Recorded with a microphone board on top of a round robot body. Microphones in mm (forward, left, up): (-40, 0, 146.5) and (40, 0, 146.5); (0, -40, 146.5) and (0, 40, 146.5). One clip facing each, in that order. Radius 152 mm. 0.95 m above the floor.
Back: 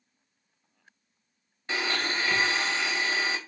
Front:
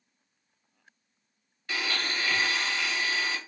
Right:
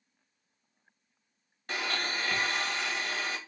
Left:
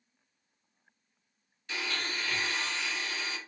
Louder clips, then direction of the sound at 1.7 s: Back 3 dB, right 3 dB; 120° right.